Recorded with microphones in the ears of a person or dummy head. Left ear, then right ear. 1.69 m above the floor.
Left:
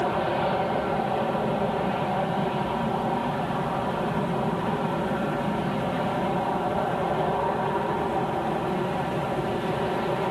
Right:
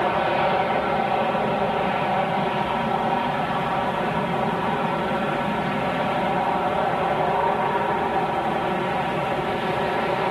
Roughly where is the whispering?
I don't hear whispering.